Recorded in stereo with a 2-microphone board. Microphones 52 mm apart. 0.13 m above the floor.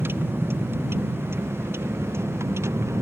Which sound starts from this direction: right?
A vehicle, at 0.0 s.